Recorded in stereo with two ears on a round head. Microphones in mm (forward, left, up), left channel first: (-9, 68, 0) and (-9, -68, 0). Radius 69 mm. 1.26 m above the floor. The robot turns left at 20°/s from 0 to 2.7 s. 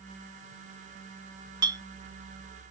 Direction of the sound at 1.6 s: 25° right (ahead or behind).